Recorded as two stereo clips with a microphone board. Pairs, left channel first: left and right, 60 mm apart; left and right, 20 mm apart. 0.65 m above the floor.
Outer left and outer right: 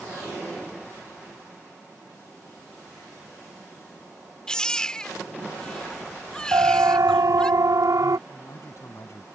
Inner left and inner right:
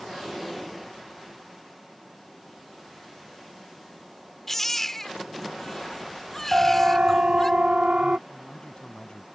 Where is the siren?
70° right (ahead or behind); by 8.2 s 65° right (ahead or behind).